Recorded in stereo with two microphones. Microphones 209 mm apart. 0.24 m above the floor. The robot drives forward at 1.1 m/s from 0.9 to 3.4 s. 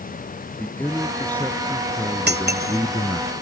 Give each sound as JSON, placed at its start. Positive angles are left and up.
{"t": 0.6, "sound": "a man speaking", "side_deg": 10}
{"t": 2.3, "sound": "cutlery clinking", "side_deg": -55}